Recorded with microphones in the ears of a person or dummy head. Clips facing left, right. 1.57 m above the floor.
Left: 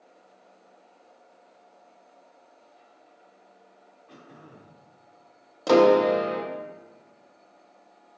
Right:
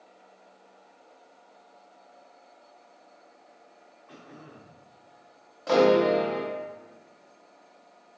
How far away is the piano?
About 0.6 m.